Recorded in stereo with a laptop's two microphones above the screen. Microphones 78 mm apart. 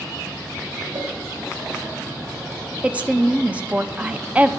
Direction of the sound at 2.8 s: 20° right (ahead or behind).